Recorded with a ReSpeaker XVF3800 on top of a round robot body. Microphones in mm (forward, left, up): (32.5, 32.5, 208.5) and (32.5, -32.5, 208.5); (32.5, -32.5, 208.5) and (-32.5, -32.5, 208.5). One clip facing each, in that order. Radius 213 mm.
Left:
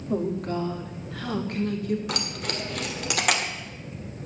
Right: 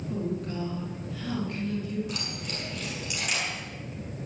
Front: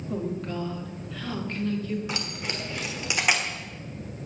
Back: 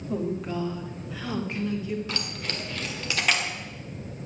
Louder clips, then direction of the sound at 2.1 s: Left 5 dB, front 1 dB; 75° left.